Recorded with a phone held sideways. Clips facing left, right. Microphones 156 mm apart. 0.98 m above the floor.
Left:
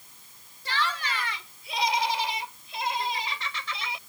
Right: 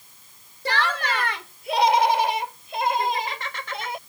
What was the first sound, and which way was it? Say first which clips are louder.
Laughter: right 6 dB; 70° right (ahead or behind).